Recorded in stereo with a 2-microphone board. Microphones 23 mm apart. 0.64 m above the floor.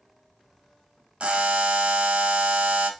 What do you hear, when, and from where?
1.2 s a buzzer: 60° right (ahead or behind), 0.5 m